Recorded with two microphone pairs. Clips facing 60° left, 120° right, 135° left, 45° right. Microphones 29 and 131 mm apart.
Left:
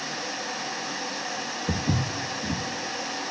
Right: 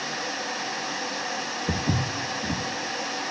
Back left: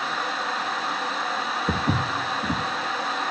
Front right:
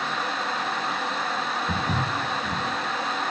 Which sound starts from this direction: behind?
Footsteps, at 1.7 s.